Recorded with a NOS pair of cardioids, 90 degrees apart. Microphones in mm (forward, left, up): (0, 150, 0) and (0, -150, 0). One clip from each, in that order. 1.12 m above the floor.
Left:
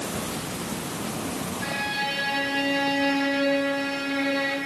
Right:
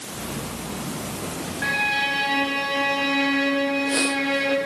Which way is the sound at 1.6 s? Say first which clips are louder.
Right 6 dB; 65° right.